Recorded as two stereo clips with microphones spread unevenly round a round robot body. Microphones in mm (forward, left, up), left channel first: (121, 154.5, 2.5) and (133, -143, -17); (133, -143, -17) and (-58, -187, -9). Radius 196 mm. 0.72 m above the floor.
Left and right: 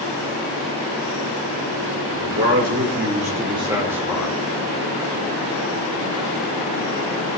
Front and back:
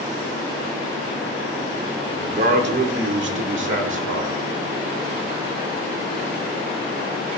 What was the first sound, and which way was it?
A man speaking, 135° right.